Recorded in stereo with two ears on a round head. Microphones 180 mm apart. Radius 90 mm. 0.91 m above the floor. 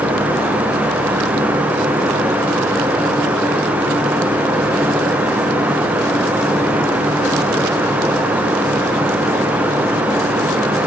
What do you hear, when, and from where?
Only background noise.